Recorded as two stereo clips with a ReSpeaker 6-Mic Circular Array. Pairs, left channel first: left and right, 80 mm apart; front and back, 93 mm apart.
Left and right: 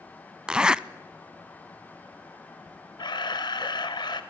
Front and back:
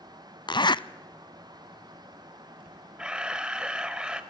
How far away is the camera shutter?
About 1.5 m.